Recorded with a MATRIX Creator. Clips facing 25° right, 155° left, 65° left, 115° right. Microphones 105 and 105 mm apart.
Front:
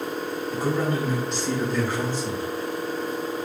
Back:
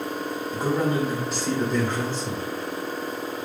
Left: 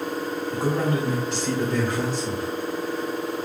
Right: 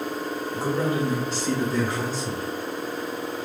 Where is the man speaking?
100° left, 1.9 m; by 2.5 s 50° left, 3.5 m.